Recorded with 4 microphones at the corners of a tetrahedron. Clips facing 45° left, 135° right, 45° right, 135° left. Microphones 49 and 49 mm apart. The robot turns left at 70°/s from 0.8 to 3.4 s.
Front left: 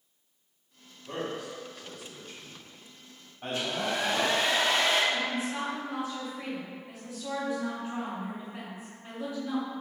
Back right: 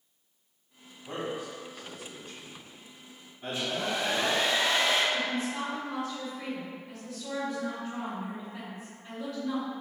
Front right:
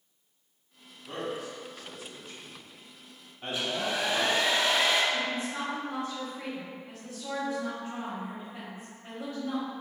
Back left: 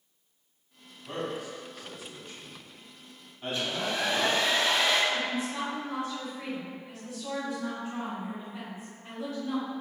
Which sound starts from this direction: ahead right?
A woman speaking, at 5.1 s.